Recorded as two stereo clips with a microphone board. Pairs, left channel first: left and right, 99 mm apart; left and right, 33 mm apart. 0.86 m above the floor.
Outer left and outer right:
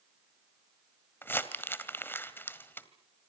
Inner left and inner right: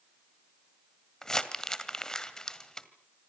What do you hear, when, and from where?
1.2 s crumpling: 20° left (ahead or behind), 2.0 m